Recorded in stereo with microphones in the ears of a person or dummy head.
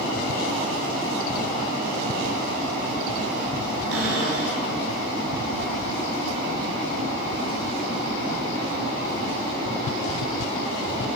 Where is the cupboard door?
85° right, 6 m.